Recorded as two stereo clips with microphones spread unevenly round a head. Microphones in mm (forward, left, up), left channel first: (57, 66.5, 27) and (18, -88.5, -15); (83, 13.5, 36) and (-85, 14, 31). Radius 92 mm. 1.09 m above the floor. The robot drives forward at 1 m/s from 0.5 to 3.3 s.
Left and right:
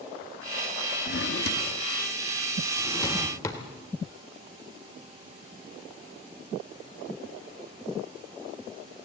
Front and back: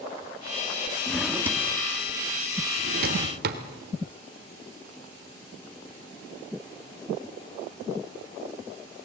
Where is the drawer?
80° left, 1.2 m; by 3.6 s 150° left, 2.5 m.